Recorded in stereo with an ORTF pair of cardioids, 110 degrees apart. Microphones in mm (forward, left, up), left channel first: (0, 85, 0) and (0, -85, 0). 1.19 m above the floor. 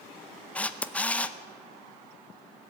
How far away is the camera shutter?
About 0.6 m.